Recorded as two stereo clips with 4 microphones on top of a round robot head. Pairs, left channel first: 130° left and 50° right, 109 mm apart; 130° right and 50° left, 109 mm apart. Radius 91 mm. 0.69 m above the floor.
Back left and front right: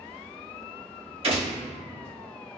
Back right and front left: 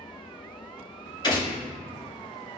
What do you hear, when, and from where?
1.2 s a gunshot: 80° right, 2.0 m